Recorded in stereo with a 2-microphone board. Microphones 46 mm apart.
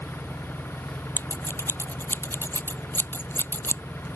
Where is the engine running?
60° left (ahead or behind).